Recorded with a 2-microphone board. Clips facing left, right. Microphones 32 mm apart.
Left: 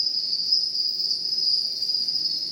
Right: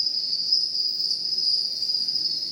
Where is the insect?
5° left (ahead or behind), 5 m.